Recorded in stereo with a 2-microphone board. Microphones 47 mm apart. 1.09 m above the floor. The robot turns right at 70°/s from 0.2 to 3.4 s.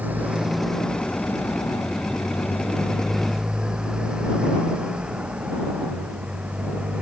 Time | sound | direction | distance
0.0 | a motorcycle | 35° right (ahead or behind) | ?